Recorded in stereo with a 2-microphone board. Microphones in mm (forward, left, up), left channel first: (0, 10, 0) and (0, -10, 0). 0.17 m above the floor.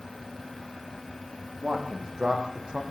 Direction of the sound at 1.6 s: 40° right (ahead or behind).